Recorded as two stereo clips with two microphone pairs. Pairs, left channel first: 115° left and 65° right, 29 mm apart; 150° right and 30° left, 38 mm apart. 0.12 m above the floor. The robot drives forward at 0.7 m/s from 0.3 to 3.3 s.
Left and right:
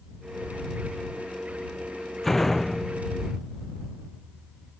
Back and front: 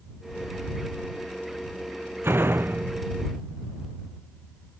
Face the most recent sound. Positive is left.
turn(degrees=35)